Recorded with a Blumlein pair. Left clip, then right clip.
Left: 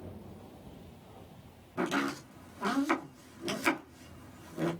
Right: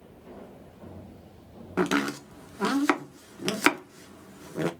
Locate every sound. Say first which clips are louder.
1.8 s chopping: right 6 dB; 50° right, 1.1 m